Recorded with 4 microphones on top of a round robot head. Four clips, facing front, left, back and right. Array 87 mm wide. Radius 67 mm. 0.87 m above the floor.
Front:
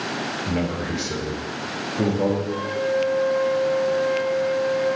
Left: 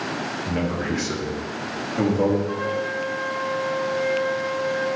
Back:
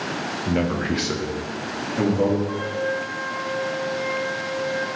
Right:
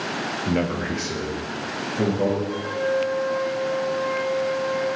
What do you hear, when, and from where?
0.5 s a man speaking: 105° right, 0.6 m; by 2.4 s 135° left, 1.7 m
2.5 s a flute: 125° left, 0.8 m